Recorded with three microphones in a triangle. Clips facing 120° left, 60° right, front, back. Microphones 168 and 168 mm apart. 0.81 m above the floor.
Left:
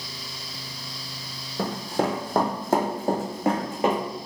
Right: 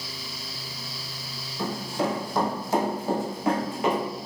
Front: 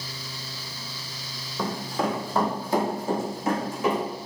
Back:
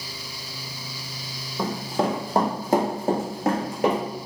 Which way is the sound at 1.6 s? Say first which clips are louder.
Left 2 dB, back 3 dB; 105° left.